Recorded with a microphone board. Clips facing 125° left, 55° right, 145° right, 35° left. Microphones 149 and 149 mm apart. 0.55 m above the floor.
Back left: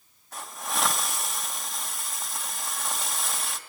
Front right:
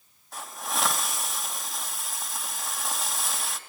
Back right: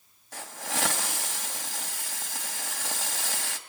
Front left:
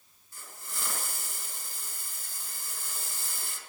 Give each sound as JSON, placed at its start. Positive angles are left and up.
{"t": 0.3, "sound": "a hiss", "azimuth_deg": -145, "distance_m": 2.5}